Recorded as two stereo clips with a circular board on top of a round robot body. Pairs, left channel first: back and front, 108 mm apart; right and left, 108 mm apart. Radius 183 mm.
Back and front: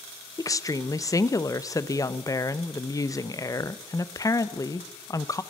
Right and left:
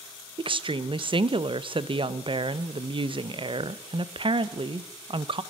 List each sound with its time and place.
0.4 s a woman speaking: 125° left, 0.7 m